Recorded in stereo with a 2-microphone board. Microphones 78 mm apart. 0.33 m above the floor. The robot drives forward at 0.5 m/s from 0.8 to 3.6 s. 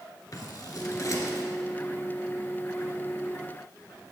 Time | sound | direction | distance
0.3 | scissors | 50° left (ahead or behind) | 1.2 m